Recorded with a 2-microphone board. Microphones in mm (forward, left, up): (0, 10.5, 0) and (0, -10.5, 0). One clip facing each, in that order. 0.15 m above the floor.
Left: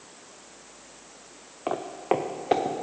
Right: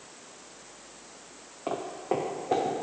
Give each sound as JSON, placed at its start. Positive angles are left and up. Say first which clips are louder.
{"t": 1.7, "sound": "footsteps", "louder": "left 4 dB", "side_deg": 20, "distance_m": 0.6}